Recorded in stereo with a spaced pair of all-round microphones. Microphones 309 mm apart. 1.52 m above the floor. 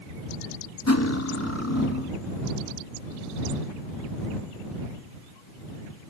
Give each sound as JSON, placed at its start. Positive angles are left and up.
{"t": 0.9, "sound": "cutlery clinking", "side_deg": 55}